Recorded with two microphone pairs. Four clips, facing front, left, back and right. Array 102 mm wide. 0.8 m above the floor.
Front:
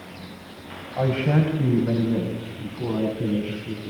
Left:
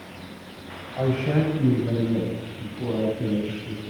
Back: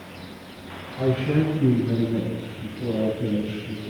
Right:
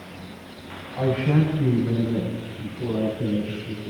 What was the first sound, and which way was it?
A man speaking, 15° left.